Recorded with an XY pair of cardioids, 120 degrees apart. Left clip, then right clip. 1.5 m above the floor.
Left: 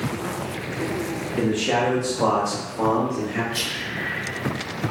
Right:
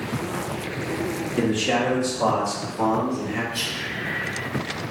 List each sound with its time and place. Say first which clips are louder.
1.4 s a man speaking: left 1 dB; 10° right, 1.0 m; by 3.4 s 35° left, 2.5 m
3.5 s whispering: left 1 dB; 35° left, 1.1 m